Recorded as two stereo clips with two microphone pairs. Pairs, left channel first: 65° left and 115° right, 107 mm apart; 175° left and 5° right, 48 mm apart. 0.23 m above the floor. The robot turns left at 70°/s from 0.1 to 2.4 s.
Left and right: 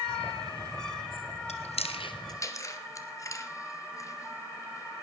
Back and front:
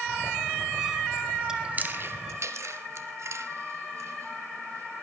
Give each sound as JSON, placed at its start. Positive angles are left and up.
{"t": 1.5, "sound": "chewing", "azimuth_deg": 70, "distance_m": 1.5}